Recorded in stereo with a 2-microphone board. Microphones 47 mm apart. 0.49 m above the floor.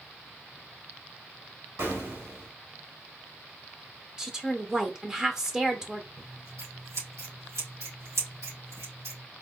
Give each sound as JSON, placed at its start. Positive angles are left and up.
{"t": 1.8, "sound": "an explosion", "side_deg": -65, "distance_m": 2.0}
{"t": 4.2, "sound": "a woman speaking", "side_deg": -15, "distance_m": 0.7}
{"t": 6.2, "sound": "scissors", "side_deg": -85, "distance_m": 3.0}